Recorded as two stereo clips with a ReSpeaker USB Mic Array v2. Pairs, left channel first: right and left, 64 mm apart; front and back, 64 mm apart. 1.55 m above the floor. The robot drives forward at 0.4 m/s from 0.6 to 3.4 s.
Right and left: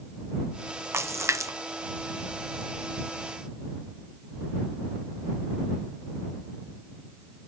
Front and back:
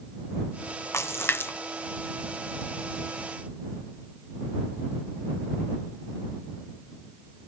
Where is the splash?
45° left; by 1.5 s 55° left.